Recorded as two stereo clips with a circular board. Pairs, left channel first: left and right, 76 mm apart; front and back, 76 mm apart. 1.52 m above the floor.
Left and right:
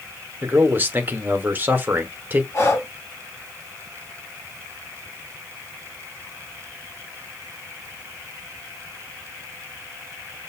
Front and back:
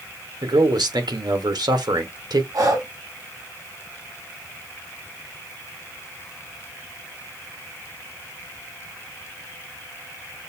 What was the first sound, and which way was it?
A man speaking, 155° right.